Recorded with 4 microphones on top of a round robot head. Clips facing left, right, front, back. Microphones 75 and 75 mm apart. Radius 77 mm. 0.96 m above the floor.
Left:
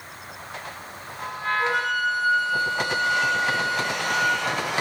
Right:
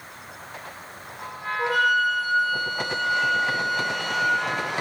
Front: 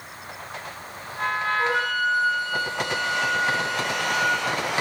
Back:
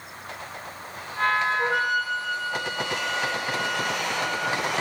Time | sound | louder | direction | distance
1.6 | a flute | right 5 dB, front 1 dB | 100° right | 2.5 m